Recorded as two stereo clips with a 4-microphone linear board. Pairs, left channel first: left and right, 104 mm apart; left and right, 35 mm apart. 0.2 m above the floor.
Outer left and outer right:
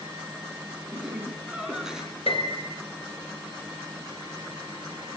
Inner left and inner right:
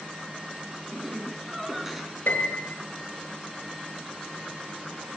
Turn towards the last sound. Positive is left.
turn(degrees=75)  # may be behind; listen again after turning